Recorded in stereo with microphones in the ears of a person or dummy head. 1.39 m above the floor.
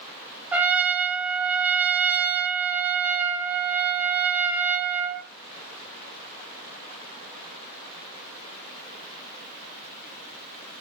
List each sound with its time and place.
0.5 s a trumpet: 10° right (ahead or behind), 0.7 m